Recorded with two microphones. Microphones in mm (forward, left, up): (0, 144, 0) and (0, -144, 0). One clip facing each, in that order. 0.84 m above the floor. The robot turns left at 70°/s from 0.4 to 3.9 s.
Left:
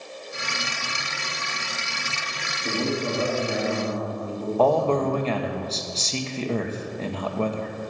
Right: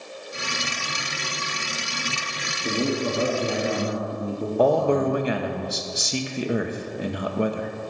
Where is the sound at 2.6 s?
20° right, 1.4 m; by 5.2 s 105° right, 1.4 m.